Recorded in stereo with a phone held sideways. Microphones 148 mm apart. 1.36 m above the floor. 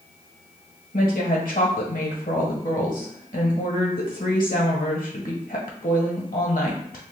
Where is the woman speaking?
70° left (ahead or behind), 1.1 m.